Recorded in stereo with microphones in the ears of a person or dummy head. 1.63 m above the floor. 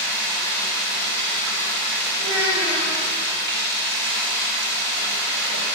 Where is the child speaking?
75° right (ahead or behind), 4.5 m.